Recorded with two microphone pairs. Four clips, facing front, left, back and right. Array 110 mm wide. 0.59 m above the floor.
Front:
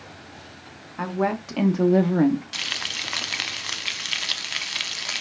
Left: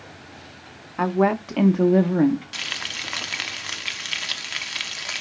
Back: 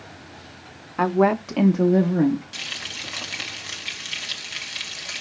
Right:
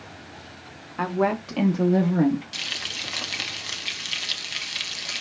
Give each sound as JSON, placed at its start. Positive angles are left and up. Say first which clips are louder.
{"t": 1.0, "sound": "a woman speaking", "louder": "left 3 dB, back 6 dB", "azimuth_deg": 165, "distance_m": 0.8}
{"t": 2.5, "sound": "frying", "louder": "left 3 dB, front 3 dB", "azimuth_deg": 35, "distance_m": 0.9}